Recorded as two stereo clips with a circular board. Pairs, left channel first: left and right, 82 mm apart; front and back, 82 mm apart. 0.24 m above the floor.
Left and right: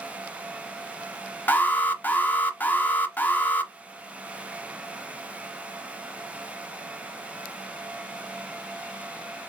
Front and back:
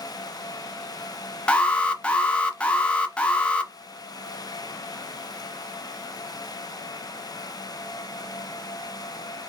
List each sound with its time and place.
1.5 s an alarm: 55° left, 0.6 m